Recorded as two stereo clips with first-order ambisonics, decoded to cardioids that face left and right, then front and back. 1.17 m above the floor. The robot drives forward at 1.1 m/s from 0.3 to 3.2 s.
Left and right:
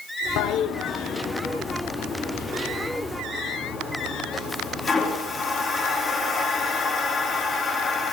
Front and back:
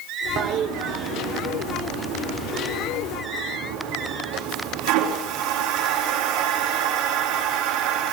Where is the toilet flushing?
120° left, 0.8 m; by 8.1 s 170° left, 3.5 m.